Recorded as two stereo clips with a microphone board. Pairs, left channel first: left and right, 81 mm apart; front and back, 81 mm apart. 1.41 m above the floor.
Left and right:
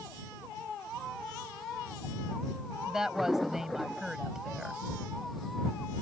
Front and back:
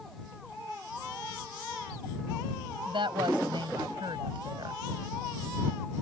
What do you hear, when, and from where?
2.9 s a woman speaking: 175° right